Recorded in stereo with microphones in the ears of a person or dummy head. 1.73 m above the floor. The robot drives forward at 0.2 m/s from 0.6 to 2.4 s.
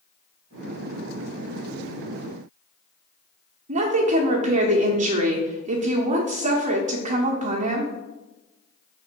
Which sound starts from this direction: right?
A woman speaking, at 3.7 s.